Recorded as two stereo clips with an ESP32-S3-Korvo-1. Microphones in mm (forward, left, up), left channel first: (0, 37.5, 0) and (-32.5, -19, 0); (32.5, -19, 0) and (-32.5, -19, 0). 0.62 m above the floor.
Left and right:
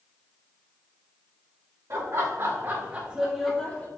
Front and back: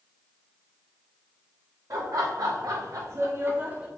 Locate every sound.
1.9 s laughter: 165° right, 2.5 m; by 3.9 s 115° left, 1.5 m